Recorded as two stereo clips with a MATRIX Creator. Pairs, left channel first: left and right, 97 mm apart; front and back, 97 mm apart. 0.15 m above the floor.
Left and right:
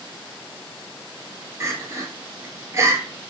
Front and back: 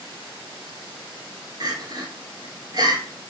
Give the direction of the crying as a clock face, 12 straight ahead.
5 o'clock.